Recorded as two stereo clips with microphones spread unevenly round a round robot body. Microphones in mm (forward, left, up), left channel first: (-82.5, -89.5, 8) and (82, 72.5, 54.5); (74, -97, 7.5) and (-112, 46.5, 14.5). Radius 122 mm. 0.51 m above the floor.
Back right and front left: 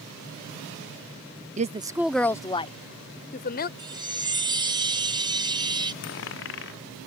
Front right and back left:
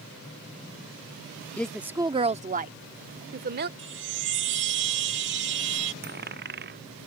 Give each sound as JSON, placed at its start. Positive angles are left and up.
{"t": 1.6, "sound": "a woman speaking", "azimuth_deg": 30}
{"t": 3.8, "sound": "a chime", "azimuth_deg": 120}
{"t": 6.0, "sound": "a dropped coin", "azimuth_deg": -175}